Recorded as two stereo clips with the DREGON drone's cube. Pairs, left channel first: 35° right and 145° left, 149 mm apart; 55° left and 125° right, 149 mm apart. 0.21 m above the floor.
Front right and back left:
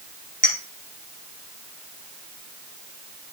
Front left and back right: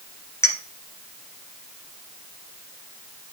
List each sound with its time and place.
0.4 s a clink: 15° right, 2.0 m